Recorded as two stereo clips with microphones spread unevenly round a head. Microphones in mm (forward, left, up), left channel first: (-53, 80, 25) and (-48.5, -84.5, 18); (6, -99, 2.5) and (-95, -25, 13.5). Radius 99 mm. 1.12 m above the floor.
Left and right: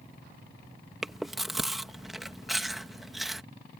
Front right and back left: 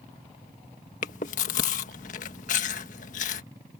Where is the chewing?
Straight ahead.